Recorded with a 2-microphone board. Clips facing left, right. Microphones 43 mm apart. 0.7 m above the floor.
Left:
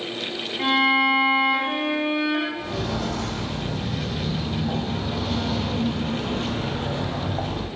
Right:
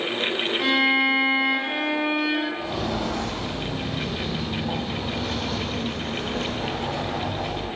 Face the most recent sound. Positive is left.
turn(degrees=40)  # may be behind; listen again after turning